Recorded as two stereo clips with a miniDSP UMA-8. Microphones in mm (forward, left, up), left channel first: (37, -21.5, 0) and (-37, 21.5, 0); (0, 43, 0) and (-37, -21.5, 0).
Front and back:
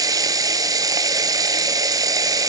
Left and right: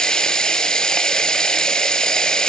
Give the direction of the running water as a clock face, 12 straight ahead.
7 o'clock.